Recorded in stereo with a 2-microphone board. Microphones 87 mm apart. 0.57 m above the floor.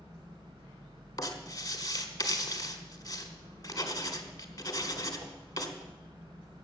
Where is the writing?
40° left (ahead or behind), 1.4 m.